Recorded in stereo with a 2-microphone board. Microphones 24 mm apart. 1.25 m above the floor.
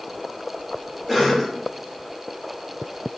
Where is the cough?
Centre (ahead or behind), 2 m.